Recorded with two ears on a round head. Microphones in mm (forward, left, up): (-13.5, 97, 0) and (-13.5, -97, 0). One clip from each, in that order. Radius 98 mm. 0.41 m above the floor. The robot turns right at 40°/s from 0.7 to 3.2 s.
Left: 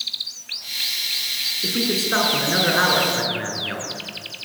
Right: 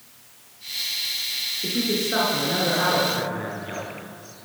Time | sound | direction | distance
1.6 | a man speaking | 70° left | 5.5 m